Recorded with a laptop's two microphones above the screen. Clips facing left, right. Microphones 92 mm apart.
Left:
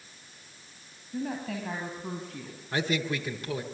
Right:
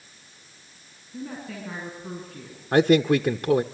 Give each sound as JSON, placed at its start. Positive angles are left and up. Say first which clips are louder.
{"t": 1.1, "sound": "a woman speaking", "louder": "left 3 dB", "side_deg": 80, "distance_m": 5.0}
{"t": 2.7, "sound": "a man speaking", "louder": "right 12 dB", "side_deg": -55, "distance_m": 0.8}